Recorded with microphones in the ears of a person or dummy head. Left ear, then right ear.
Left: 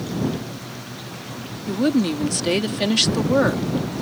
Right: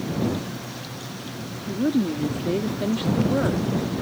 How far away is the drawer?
I don't hear a drawer.